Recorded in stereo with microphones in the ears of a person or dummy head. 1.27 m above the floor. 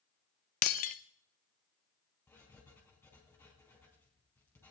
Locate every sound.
0.6 s breaking glass: 30° left (ahead or behind), 0.5 m
2.3 s writing: 10° left (ahead or behind), 3.5 m